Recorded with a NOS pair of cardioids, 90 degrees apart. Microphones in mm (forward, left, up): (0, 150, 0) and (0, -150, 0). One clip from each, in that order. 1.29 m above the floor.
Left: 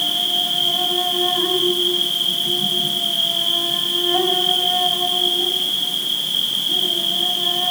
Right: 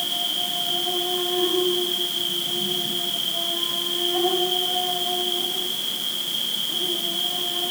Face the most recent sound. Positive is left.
turn(degrees=60)